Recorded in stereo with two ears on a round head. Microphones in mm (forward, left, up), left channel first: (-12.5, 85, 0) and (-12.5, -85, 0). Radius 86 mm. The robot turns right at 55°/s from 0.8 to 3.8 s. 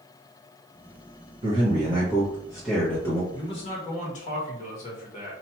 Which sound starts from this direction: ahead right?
A man speaking, at 1.4 s.